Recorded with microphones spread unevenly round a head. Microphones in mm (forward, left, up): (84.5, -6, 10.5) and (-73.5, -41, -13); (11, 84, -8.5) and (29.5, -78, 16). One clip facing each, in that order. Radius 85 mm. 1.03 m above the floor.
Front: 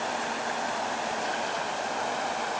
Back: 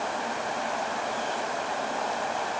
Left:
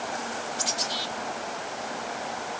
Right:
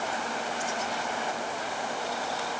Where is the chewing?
No chewing in this recording.